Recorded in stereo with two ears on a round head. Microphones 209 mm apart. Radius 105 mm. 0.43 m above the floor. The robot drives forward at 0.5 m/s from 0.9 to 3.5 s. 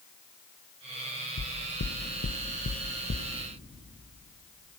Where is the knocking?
55° left (ahead or behind), 1.3 m; by 3.3 s 40° left (ahead or behind), 1.7 m.